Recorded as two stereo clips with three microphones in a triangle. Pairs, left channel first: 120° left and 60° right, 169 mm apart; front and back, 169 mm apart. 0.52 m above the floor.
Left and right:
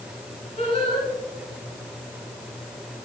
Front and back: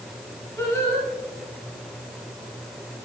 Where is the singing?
70° left, 4.5 m.